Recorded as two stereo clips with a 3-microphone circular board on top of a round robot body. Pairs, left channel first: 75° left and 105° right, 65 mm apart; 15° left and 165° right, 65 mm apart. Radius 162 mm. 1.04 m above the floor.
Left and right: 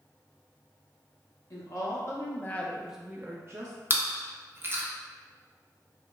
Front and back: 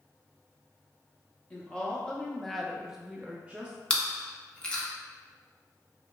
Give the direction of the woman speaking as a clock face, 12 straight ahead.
9 o'clock.